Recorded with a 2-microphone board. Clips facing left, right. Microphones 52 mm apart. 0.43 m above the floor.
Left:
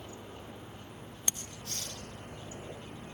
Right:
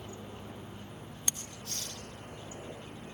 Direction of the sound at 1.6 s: 65° left (ahead or behind).